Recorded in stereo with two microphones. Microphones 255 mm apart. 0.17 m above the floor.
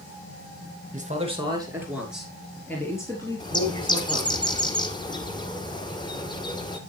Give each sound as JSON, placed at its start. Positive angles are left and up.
{"t": 0.9, "sound": "a man speaking", "side_deg": -30, "distance_m": 2.5}
{"t": 3.4, "sound": "a bird", "side_deg": 15, "distance_m": 1.2}